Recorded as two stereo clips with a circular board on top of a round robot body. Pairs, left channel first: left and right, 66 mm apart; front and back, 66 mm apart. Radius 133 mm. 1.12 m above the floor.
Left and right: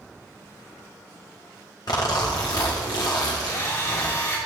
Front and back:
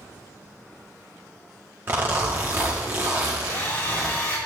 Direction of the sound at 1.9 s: 120° left.